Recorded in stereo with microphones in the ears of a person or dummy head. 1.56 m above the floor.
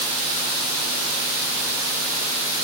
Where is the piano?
I don't hear a piano.